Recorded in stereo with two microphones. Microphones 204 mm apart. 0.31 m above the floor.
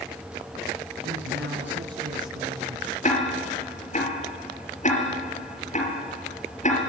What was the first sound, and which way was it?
A woman speaking, 65° right (ahead or behind).